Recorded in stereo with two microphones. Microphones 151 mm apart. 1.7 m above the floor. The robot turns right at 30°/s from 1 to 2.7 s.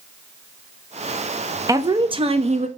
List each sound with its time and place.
1.7 s a woman speaking: 25° right (ahead or behind), 0.5 m; by 2.7 s 50° right (ahead or behind), 0.5 m